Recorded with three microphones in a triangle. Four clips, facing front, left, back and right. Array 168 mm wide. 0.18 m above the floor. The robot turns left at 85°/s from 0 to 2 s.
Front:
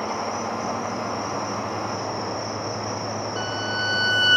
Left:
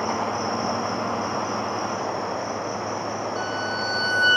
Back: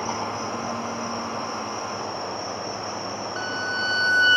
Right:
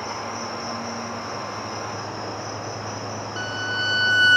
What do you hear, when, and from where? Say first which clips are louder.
0.0 s an insect: left 5 dB, front 1 dB; 140° left, 1.9 m; by 4.4 s 30° right, 1.9 m
3.4 s a violin: left 1 dB, front 1 dB; 160° right, 1.1 m